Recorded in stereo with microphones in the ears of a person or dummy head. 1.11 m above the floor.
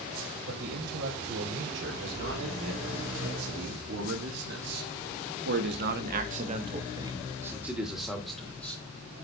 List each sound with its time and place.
0.5 s a man speaking: 60° right (ahead or behind), 4 m; by 8.8 s 10° left (ahead or behind), 2.5 m